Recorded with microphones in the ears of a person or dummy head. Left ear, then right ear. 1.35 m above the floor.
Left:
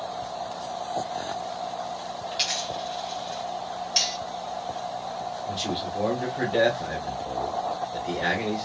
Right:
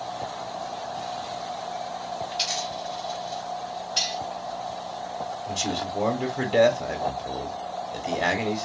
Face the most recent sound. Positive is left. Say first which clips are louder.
# right 2 dB
turn(degrees=-60)  # may be behind; listen again after turning